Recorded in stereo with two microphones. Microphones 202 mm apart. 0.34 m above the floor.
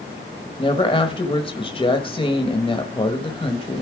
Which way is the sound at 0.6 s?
25° left (ahead or behind).